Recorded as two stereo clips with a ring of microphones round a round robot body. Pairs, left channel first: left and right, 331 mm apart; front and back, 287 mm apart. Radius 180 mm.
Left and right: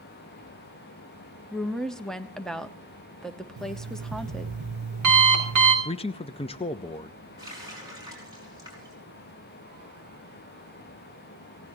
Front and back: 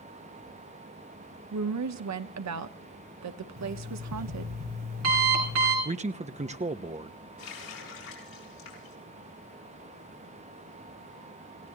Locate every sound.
1.5 s a woman speaking: straight behind, 1.1 m
3.6 s an alarm clock: 130° right, 4.5 m
5.8 s a man speaking: 145° left, 0.7 m
7.4 s a running tap: 10° right, 6 m